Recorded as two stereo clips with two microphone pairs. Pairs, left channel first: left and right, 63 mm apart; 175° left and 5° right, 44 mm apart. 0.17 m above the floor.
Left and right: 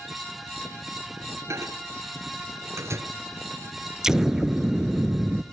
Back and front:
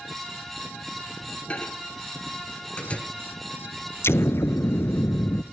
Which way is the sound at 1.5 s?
125° right.